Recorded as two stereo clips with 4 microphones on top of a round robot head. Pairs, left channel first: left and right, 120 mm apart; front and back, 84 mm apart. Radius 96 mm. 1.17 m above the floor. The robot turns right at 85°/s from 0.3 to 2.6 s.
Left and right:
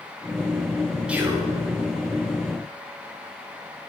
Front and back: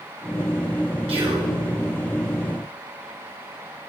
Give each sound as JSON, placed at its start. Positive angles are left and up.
{"t": 1.1, "sound": "whispering", "azimuth_deg": -170, "distance_m": 1.7}